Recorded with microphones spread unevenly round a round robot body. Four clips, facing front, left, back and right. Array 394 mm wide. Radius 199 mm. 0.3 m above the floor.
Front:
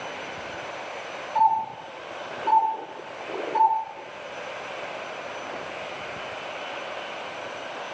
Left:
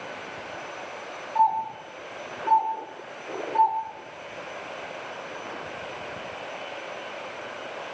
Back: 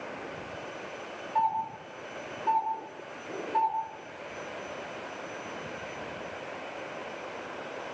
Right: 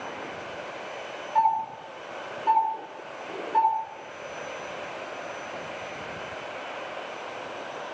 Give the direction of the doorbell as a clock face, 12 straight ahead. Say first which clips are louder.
Left 1 dB, front 7 dB; 4 o'clock.